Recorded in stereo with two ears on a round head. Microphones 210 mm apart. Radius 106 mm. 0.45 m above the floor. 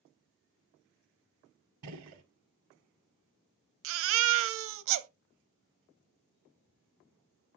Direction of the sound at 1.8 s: 80° right.